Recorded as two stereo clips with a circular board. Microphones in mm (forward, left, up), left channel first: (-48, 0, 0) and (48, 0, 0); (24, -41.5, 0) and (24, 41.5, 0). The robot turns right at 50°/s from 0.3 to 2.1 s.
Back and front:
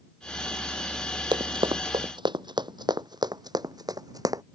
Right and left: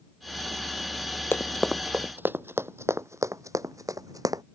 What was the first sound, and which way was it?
Running footsteps, 30° right.